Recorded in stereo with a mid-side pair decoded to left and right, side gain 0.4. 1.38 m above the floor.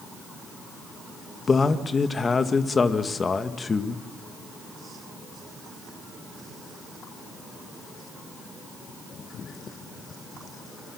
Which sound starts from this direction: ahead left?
A man speaking, at 1.5 s.